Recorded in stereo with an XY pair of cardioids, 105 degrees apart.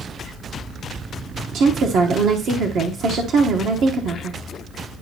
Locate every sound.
1.5 s a woman speaking: 70° right, 1.0 m